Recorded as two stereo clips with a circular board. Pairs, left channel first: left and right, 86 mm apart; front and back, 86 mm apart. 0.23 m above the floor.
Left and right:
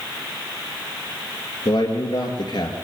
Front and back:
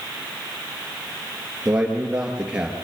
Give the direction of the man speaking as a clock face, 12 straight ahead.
9 o'clock.